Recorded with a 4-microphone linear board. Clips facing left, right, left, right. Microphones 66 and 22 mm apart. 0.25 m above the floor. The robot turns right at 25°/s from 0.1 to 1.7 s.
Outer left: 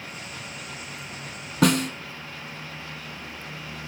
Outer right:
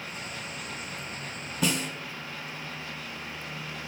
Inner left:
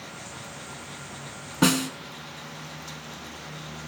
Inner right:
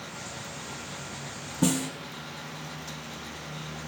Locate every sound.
1.6 s a snare drum: 70° left (ahead or behind), 0.8 m